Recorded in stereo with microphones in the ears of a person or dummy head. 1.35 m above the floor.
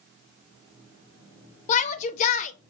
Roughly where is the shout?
Left.